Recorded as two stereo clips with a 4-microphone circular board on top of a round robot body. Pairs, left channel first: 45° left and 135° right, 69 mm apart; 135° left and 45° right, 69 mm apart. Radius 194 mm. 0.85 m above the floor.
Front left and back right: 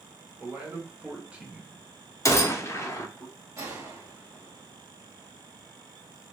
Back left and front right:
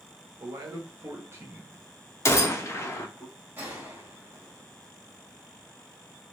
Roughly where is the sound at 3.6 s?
Right.